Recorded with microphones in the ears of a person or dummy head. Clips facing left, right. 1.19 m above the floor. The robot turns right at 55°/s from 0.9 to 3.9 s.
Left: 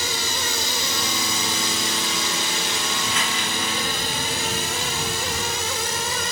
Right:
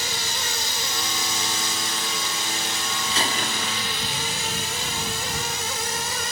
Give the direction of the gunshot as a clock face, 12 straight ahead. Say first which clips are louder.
Even; 5 o'clock.